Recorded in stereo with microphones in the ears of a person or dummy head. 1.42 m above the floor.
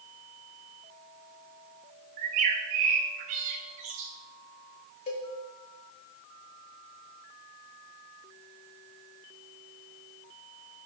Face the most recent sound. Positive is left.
turn(degrees=40)  # may be behind; listen again after turning